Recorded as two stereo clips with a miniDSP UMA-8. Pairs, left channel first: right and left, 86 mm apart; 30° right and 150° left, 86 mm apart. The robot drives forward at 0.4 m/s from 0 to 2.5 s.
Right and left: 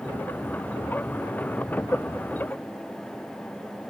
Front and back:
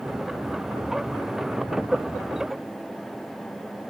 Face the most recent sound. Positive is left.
No sound to turn to.